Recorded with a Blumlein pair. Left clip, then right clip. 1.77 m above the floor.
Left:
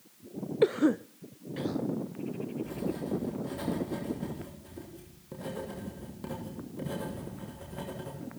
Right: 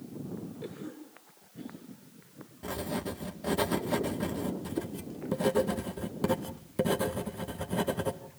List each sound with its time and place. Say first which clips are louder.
0.6 s a cough: left 17 dB; 40° left, 0.6 m
2.6 s writing: right 4 dB; 60° right, 2.5 m